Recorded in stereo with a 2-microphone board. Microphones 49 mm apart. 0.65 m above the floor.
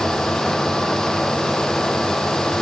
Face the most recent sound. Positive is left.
No sound to turn to.